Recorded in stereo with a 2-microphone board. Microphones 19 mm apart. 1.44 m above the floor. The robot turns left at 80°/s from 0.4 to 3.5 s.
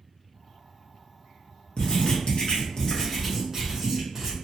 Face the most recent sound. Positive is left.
turn(degrees=-25)